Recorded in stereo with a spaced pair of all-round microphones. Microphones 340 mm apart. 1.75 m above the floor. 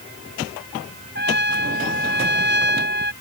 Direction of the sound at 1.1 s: 30° right (ahead or behind).